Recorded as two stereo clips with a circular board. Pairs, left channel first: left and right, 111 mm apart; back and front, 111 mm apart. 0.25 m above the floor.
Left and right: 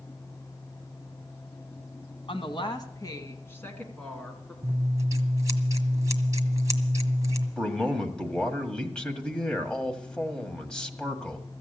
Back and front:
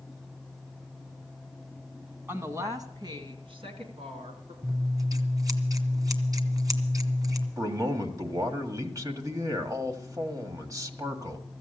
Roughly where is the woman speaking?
Ahead left.